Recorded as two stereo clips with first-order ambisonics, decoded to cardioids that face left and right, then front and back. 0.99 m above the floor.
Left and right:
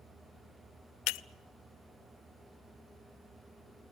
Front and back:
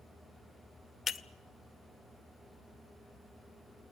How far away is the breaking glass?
About 0.7 m.